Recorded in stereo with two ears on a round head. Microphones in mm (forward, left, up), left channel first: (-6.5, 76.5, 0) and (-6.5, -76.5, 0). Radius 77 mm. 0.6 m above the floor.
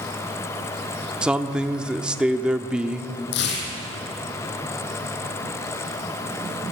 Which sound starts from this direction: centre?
A man speaking, at 1.2 s.